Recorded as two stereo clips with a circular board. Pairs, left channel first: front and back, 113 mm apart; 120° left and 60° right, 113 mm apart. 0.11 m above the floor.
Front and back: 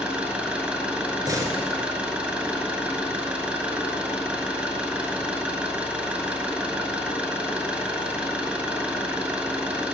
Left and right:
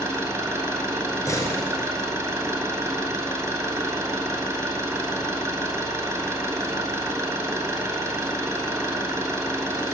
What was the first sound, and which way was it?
An engine running, 105° right.